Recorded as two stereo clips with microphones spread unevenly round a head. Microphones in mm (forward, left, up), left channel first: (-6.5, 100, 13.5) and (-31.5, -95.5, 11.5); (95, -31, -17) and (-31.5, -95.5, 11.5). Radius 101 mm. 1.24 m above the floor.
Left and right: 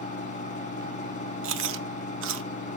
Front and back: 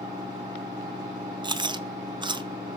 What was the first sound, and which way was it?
A fan, 130° left.